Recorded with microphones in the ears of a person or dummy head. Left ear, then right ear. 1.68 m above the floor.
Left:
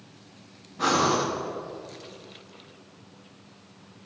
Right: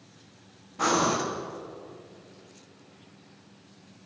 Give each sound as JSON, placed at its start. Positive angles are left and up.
{"t": 0.8, "sound": "breathing", "side_deg": -35, "distance_m": 1.5}